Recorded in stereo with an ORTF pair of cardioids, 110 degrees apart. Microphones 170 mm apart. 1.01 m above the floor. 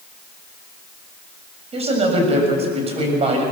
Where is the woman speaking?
40° right, 7 m.